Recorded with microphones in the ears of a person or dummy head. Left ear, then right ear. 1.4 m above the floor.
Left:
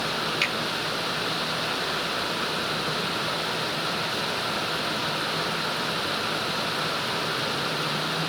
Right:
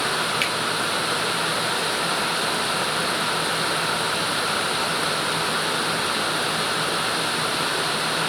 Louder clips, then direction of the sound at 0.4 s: Right 2 dB; 10° right (ahead or behind).